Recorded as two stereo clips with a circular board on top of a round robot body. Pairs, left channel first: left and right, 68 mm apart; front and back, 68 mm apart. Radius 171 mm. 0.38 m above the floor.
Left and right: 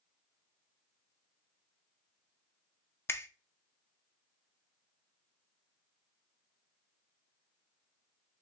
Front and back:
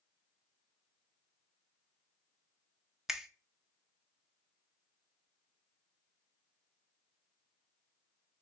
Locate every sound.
3.1 s a finger snap: 100° left, 0.7 m